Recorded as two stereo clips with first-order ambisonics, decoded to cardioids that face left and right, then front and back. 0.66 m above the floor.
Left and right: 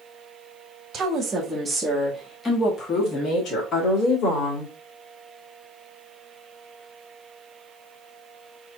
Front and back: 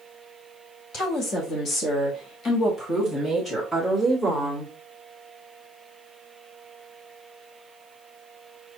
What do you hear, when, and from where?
0.9 s a woman speaking: 40° right, 1.4 m; by 4.7 s 80° left, 2 m